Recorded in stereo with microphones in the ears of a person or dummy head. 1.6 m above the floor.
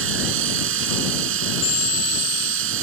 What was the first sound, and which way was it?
A machine running, 80° right.